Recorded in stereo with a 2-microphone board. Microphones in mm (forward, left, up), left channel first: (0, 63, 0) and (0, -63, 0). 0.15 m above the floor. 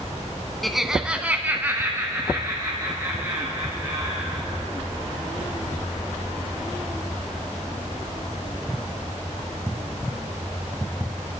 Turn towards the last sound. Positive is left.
turn(degrees=-25)  # may be behind; listen again after turning